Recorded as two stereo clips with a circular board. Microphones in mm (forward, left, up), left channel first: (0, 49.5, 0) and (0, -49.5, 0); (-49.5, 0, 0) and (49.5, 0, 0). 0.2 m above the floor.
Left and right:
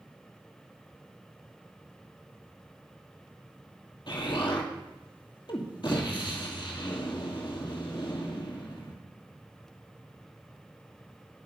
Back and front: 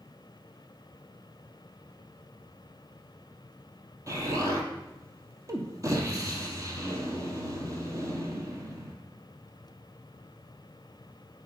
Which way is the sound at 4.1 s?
55° left.